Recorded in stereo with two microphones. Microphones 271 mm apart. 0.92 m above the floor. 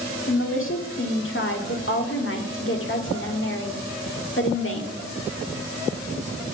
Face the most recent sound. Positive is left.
turn(degrees=50)  # may be behind; listen again after turning